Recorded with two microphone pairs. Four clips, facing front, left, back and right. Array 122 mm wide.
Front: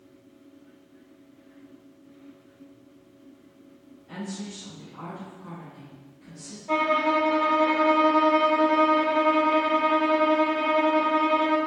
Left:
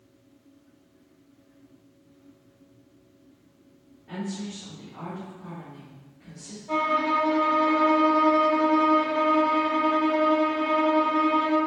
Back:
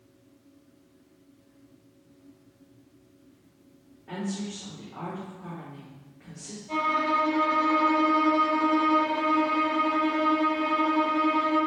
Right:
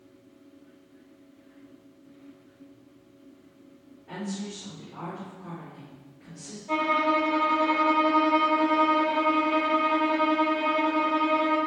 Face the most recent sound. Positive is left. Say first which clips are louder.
# even, front 3 dB
turn(degrees=10)